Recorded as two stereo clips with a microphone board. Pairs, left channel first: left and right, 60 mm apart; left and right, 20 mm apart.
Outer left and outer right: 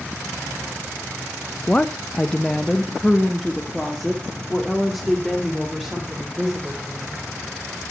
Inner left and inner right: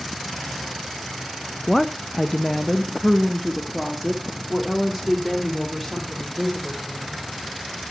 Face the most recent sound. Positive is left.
turn(degrees=-5)  # may be behind; listen again after turning